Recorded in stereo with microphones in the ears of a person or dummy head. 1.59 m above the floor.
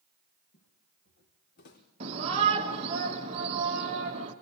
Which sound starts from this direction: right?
A shout, at 2.0 s.